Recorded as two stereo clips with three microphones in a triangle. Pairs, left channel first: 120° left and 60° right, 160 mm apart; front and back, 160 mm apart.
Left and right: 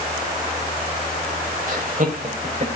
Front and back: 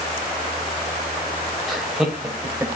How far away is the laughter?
About 3.5 m.